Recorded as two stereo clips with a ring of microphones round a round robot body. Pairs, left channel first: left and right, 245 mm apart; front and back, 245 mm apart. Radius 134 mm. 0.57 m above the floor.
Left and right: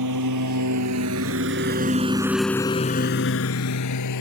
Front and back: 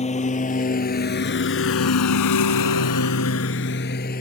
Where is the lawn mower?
65° right; by 4.2 s 60° left.